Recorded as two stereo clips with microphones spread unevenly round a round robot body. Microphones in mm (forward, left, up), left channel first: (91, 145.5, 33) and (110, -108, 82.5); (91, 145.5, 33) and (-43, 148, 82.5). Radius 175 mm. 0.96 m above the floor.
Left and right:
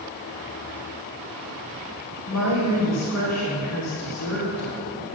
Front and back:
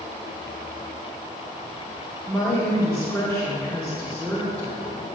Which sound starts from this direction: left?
A woman speaking, at 2.3 s.